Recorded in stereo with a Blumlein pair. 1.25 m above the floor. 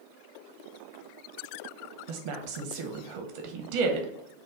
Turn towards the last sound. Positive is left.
turn(degrees=-45)